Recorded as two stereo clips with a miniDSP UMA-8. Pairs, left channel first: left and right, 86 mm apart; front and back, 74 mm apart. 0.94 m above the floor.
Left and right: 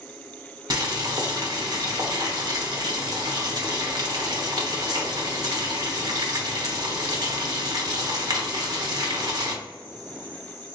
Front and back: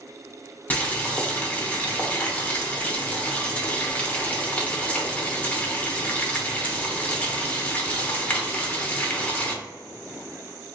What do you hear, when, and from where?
0.7 s boiling: 60° right, 0.8 m